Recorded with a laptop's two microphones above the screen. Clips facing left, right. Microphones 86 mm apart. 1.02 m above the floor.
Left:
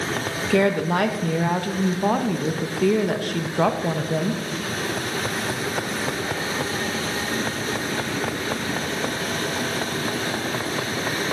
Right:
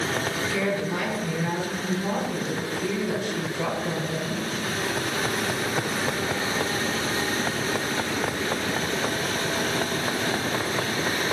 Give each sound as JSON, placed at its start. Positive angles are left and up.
{"t": 0.5, "sound": "a woman speaking", "side_deg": 65, "distance_m": 1.0}